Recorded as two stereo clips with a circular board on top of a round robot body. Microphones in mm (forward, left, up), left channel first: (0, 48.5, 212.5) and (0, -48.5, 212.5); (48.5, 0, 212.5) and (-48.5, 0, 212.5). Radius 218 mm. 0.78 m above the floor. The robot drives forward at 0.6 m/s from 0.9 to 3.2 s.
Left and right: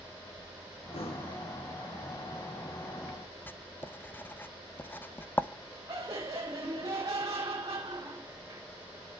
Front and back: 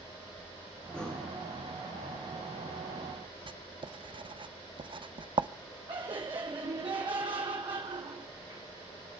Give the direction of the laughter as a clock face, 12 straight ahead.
5 o'clock.